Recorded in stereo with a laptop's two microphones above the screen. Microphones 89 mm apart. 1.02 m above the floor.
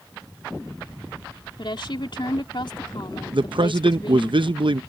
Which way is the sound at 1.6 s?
60° left (ahead or behind).